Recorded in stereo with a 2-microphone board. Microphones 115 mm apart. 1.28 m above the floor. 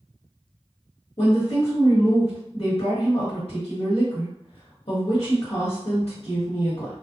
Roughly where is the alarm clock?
No alarm clock in this recording.